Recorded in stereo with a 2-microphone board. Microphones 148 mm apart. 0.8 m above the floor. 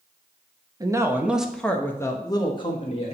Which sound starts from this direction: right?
A man speaking, at 0.8 s.